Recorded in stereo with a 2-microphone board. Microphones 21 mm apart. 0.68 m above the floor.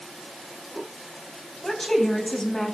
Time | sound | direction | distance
1.6 | a woman speaking | 25° left (ahead or behind) | 3.5 m